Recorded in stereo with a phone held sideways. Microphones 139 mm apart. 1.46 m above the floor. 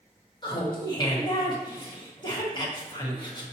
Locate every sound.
0.4 s laughter: 30° left (ahead or behind), 1.6 m